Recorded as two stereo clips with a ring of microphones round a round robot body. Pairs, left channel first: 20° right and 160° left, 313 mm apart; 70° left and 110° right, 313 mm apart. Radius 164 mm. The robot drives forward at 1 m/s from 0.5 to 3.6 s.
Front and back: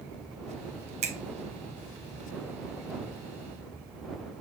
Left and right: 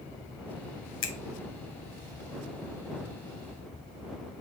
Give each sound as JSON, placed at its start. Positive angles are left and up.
{"t": 1.0, "sound": "a finger snap", "azimuth_deg": 95, "distance_m": 0.8}